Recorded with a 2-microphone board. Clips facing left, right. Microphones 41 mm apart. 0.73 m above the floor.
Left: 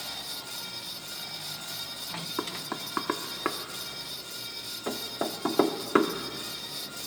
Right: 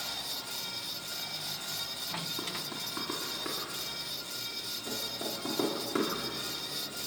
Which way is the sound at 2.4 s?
45° left (ahead or behind).